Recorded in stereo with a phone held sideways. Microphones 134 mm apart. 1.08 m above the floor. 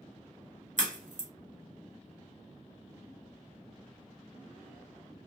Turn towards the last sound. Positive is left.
turn(degrees=-70)  # may be behind; listen again after turning